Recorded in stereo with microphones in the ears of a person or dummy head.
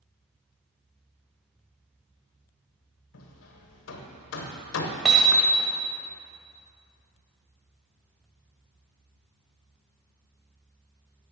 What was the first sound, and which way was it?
Hammering, 75° left (ahead or behind).